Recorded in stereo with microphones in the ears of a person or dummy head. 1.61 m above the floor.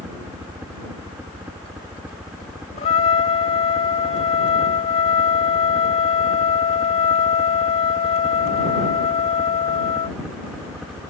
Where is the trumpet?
30° left (ahead or behind).